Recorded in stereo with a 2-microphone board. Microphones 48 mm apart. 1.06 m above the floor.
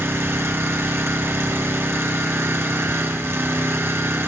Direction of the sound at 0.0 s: 65° right (ahead or behind).